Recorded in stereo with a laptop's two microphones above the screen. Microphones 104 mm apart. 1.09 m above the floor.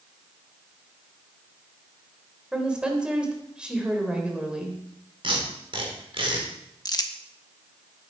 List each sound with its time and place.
2.5 s a woman speaking: 10° right (ahead or behind), 3.5 m
5.2 s tape being pulled: 55° right (ahead or behind), 3.5 m
6.8 s crumpling: 40° left (ahead or behind), 1.3 m